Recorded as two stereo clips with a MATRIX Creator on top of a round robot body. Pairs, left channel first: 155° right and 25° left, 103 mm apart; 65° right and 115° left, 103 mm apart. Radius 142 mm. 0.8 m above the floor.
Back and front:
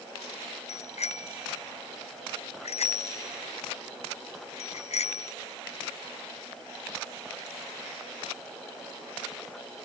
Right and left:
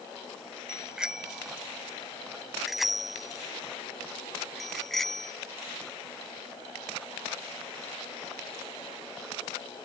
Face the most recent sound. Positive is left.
turn(degrees=-155)